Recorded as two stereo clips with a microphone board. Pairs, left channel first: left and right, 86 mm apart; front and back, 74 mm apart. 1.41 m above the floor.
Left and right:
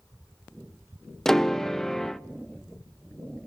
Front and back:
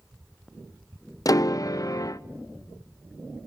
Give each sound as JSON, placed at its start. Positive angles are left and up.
{"t": 1.2, "sound": "a piano", "azimuth_deg": 5, "distance_m": 0.6}